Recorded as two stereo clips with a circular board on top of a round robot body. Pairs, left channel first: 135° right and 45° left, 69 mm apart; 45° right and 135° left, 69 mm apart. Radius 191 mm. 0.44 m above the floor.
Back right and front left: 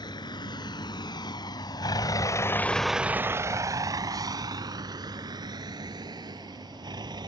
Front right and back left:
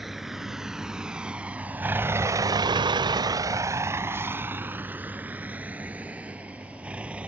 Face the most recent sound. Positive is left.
turn(degrees=60)